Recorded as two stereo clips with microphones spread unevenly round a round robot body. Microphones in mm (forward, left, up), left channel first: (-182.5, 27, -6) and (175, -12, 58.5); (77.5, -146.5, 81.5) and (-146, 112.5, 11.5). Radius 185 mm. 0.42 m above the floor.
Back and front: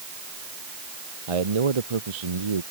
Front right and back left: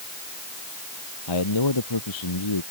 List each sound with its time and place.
1.3 s a man speaking: 15° right